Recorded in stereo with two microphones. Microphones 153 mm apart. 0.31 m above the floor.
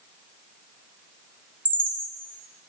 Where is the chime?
65° right (ahead or behind), 2.0 m.